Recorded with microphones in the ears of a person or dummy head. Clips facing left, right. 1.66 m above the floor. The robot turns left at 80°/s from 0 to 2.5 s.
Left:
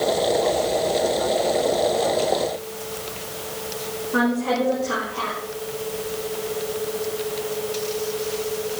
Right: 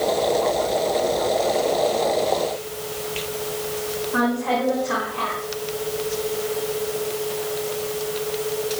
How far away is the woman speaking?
About 5.5 m.